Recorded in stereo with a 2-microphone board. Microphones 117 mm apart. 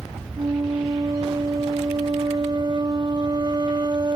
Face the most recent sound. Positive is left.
turn(degrees=-40)  # may be behind; listen again after turning